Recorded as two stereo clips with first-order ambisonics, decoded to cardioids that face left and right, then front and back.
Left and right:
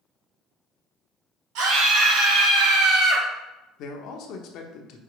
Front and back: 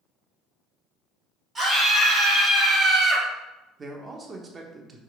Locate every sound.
1.6 s a scream: 110° right, 3.5 m
3.8 s a man speaking: 115° left, 1.1 m